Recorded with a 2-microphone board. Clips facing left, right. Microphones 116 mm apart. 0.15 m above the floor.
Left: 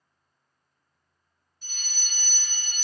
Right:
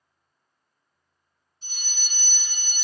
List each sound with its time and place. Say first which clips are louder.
1.6 s a fire alarm: even; 30° right (ahead or behind), 3 m